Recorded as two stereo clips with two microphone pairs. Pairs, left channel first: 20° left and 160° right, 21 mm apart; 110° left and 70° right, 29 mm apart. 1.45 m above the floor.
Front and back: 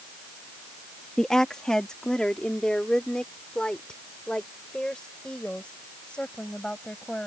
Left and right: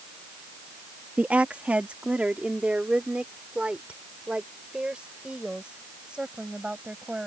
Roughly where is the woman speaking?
Ahead right.